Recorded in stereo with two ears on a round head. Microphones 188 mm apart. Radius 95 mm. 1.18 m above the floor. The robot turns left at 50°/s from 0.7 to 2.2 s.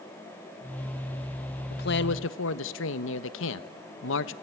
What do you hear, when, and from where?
1.7 s a man speaking: 50° left (ahead or behind), 1.2 m; by 4.3 s 75° left (ahead or behind), 1.2 m